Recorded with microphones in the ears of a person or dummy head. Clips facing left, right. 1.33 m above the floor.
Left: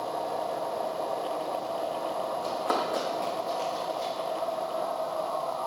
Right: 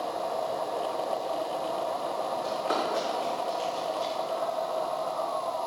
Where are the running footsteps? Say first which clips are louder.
Even; 50° left (ahead or behind), 5 m; by 4.1 s 65° left (ahead or behind), 7 m.